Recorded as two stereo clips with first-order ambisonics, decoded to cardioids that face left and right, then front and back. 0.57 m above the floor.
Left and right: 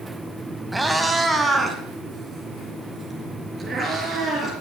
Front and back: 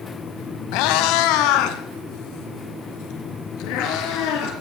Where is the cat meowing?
5° right, 1.0 m; by 4.5 s 15° right, 4 m.